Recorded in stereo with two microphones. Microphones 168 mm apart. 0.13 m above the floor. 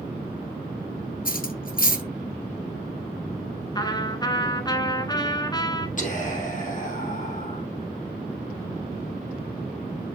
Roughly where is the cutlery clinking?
Left.